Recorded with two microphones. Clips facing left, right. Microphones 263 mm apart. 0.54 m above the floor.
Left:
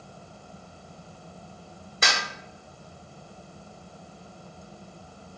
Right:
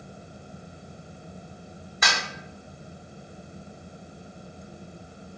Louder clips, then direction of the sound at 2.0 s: Left 1 dB; 30° left (ahead or behind).